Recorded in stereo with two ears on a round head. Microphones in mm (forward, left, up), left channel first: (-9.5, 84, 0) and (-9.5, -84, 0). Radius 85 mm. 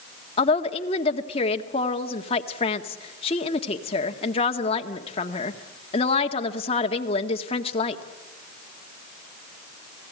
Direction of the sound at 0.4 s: 30° left (ahead or behind).